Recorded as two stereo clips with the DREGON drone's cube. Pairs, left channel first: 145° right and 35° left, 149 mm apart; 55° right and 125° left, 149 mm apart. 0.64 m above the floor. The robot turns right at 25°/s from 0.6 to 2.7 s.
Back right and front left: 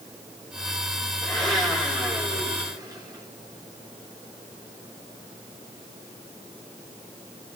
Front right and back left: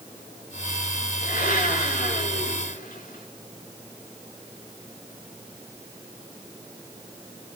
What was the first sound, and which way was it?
A blender, 65° right.